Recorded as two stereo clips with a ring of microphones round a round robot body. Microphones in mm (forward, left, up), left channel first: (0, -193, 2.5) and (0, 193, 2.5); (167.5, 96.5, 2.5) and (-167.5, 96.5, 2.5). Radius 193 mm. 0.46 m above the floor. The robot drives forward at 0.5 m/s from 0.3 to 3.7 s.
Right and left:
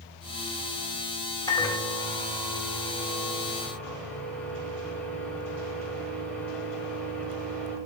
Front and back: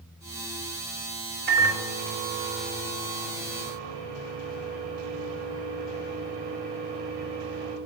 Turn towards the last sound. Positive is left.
turn(degrees=-175)